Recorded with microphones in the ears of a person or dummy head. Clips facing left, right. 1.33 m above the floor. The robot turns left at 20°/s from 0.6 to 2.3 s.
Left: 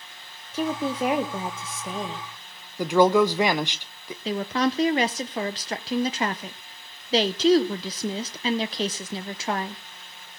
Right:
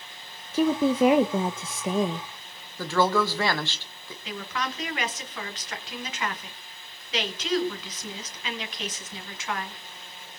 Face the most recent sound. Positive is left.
turn(degrees=30)  # may be behind; listen again after turning